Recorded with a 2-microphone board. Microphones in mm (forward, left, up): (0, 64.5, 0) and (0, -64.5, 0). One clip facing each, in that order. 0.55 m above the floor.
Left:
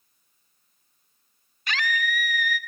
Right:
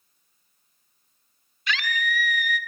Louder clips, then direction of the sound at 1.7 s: Even; 45° left (ahead or behind).